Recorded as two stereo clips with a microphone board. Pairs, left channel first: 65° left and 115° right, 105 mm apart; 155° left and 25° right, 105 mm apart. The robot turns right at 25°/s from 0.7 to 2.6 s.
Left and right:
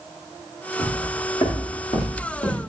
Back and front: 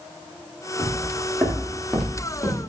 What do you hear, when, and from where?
0.8 s footsteps: 35° left, 6.5 m; by 2.6 s 80° left, 5.5 m